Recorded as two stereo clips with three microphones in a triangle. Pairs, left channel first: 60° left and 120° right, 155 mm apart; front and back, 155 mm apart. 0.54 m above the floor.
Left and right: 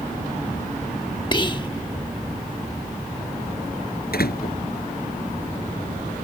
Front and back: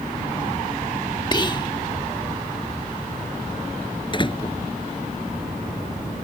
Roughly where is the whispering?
Ahead left.